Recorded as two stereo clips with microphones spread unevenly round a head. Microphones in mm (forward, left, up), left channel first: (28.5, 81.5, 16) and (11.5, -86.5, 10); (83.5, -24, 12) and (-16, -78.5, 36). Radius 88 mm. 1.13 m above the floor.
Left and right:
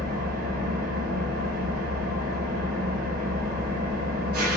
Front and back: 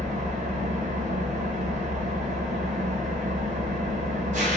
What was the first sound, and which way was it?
An engine running, 140° right.